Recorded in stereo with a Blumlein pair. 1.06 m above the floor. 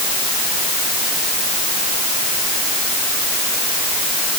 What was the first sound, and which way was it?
Only background noise.